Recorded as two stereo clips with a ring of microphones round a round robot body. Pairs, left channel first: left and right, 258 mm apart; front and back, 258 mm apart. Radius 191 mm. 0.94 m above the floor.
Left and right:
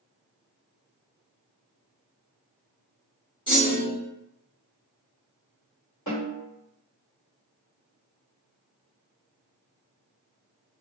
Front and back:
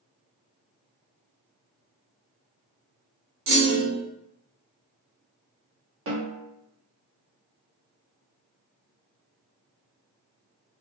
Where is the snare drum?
145° left, 1.2 m.